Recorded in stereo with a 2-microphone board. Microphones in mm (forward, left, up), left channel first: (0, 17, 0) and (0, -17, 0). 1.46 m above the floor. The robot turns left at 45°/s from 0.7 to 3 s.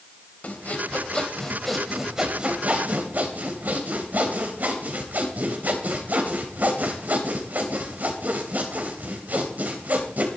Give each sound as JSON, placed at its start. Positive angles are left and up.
{"t": 0.4, "sound": "sawing", "azimuth_deg": 50, "distance_m": 3.0}